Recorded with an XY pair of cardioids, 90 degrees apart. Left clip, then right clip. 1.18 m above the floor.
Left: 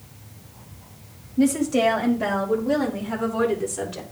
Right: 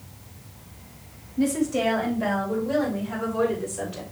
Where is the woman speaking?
40° left, 2.5 m; by 4.0 s 65° left, 3.5 m.